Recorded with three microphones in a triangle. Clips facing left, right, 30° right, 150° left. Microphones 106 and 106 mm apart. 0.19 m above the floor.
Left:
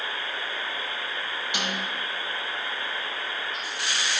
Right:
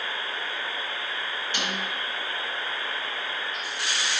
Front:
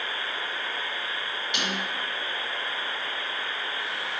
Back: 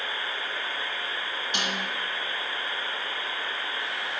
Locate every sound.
1.5 s a snare drum: 155° left, 2.0 m